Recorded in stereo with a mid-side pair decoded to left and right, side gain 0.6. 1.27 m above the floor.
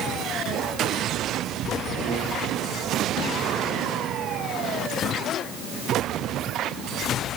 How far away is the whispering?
No whispering in this recording.